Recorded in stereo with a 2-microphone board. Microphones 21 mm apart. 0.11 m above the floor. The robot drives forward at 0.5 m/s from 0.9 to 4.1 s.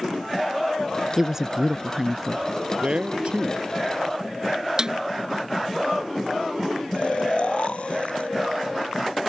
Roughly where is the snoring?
Left.